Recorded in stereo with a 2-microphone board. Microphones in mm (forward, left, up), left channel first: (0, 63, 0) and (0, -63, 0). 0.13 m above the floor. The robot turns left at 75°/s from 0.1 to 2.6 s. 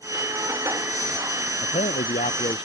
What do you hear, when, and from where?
1.6 s a man speaking: 120° left; by 2.7 s 45° left